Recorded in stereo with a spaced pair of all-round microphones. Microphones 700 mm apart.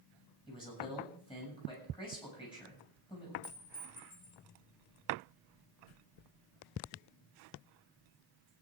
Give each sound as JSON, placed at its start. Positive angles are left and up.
{"t": 0.5, "sound": "a man speaking", "side_deg": 5, "distance_m": 7.0}
{"t": 3.4, "sound": "a clink", "side_deg": 85, "distance_m": 5.0}